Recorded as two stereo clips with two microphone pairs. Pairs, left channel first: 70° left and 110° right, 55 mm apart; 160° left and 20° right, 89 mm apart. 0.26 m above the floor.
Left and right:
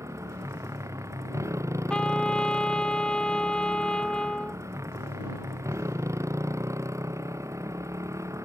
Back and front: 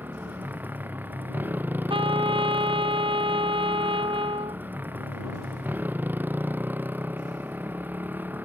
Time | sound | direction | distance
0.0 | a motorcycle | 90° right | ?
1.9 | a trumpet | 5° right | ?